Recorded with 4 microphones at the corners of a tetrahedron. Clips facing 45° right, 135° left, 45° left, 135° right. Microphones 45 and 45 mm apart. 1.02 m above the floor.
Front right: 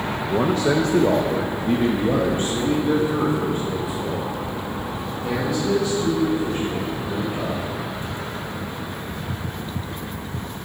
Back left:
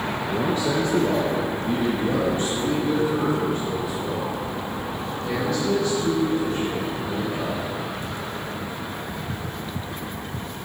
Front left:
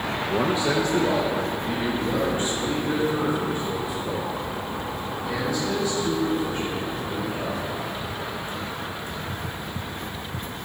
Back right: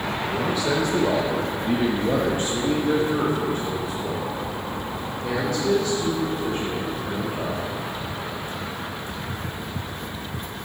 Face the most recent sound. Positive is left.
turn(degrees=-120)